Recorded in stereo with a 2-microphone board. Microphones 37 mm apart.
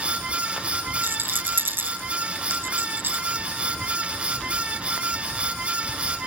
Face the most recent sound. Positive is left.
turn(degrees=-70)  # may be behind; listen again after turning